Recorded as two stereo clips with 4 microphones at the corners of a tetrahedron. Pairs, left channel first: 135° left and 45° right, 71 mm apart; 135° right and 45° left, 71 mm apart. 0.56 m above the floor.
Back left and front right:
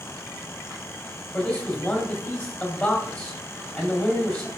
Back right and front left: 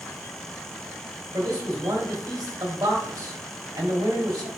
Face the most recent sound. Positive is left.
turn(degrees=75)